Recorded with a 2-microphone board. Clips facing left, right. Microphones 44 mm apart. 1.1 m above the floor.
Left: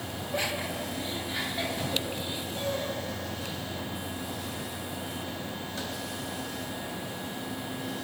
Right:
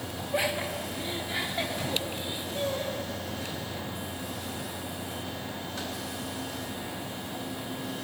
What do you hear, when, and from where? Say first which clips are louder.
0.3 s laughter: right 3 dB; 10° right (ahead or behind), 2.0 m; by 3.6 s 20° right (ahead or behind), 6 m